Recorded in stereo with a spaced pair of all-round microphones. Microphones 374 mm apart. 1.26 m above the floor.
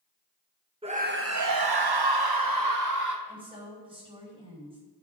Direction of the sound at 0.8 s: 15° right (ahead or behind).